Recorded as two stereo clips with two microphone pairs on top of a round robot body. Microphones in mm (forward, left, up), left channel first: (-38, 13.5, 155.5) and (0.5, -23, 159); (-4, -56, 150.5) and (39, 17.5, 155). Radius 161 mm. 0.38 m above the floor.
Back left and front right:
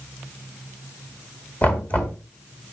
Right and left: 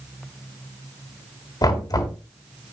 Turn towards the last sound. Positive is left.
turn(degrees=-165)